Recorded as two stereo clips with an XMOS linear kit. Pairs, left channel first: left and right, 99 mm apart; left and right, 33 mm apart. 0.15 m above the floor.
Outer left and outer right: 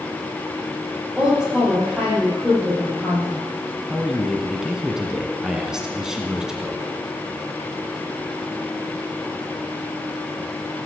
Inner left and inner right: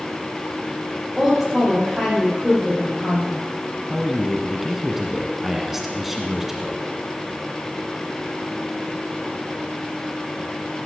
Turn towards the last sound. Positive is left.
turn(degrees=-5)  # may be behind; listen again after turning